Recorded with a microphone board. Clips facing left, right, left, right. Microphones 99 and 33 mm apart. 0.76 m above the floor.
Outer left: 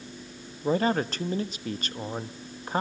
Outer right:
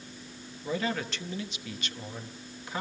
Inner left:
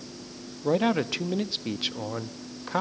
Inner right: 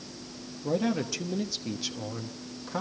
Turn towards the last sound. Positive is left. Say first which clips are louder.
# outer left 7 dB, inner left 4 dB
turn(degrees=40)  # may be behind; listen again after turning